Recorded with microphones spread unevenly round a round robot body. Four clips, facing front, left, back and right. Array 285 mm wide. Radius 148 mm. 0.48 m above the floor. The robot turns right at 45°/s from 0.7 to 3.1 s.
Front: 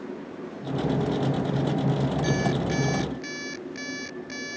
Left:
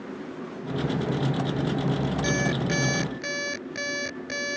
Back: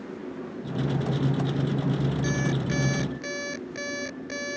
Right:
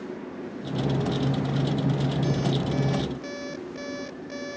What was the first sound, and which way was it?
An alarm clock, 70° left.